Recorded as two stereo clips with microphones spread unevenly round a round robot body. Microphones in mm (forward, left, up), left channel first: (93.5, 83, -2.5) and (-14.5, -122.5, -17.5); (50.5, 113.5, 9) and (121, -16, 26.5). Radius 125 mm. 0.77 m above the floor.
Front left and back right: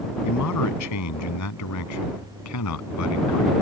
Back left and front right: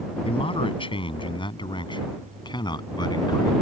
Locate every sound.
0.2 s a man speaking: 65° left; by 3.5 s 55° left